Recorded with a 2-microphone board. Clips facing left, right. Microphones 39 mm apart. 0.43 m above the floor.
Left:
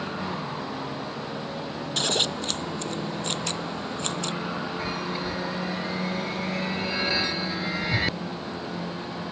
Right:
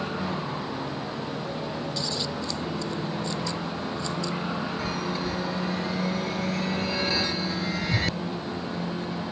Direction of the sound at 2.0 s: 65° left (ahead or behind).